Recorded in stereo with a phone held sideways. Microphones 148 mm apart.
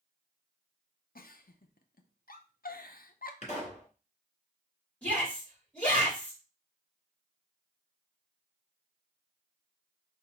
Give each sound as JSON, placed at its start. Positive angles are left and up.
{"t": 1.1, "sound": "a giggle", "side_deg": 75, "distance_m": 0.5}
{"t": 3.4, "sound": "a pop", "side_deg": 50, "distance_m": 2.0}
{"t": 5.0, "sound": "a shout", "side_deg": 10, "distance_m": 3.5}